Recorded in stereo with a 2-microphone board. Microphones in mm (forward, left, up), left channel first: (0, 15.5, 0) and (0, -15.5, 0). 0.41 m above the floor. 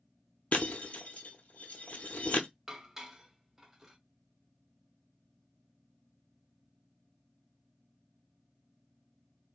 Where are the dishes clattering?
10° right (ahead or behind), 0.6 m.